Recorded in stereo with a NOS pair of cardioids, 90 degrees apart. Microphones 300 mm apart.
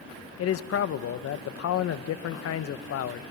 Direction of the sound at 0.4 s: 55° left.